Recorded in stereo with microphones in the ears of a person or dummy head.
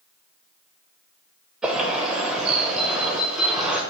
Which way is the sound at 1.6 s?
5° right (ahead or behind).